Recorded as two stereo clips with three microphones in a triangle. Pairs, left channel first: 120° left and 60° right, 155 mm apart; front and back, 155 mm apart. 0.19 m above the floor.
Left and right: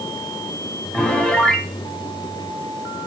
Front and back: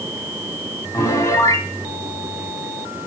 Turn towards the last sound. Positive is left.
turn(degrees=40)